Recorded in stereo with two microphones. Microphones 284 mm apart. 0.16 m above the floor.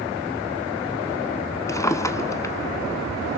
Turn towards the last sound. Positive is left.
turn(degrees=10)  # may be behind; listen again after turning